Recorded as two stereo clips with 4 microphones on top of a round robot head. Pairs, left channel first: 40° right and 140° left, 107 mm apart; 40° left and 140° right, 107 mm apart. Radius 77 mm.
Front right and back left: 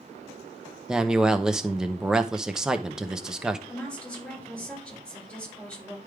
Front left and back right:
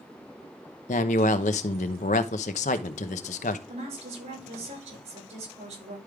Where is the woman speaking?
120° right, 6.5 m.